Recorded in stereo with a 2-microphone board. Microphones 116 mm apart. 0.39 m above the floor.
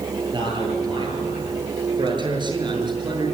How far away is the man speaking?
About 9 m.